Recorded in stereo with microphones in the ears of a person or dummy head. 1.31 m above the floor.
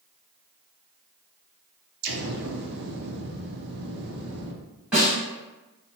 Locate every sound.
2.0 s an explosion: 60° right (ahead or behind), 0.5 m
4.9 s a snare drum: centre (ahead or behind), 1.5 m